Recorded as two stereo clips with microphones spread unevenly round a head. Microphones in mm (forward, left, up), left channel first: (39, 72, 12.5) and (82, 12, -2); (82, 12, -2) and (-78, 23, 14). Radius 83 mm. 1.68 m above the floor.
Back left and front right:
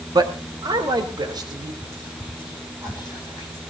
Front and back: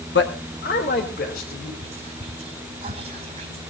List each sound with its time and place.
0.1 s a man speaking: 30° right, 1.7 m; by 1.7 s 40° right, 4 m
1.8 s whispering: 130° right, 5 m